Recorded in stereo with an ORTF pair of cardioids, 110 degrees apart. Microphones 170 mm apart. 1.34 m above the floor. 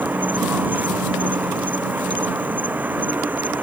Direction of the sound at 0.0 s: 10° right.